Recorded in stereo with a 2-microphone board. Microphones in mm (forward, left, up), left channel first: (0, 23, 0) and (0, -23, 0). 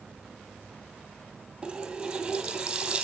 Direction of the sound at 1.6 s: 15° right (ahead or behind).